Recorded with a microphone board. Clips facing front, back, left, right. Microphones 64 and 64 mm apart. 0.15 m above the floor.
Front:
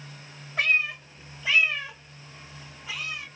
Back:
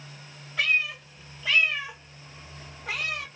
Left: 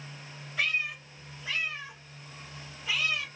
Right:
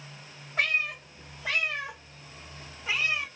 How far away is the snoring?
I don't hear snoring.